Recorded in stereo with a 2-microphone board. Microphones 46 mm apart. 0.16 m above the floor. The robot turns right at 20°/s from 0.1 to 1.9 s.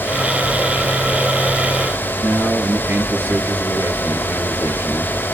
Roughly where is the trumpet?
No trumpet in this recording.